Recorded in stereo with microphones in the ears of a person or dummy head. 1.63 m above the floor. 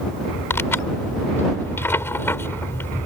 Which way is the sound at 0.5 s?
10° left (ahead or behind).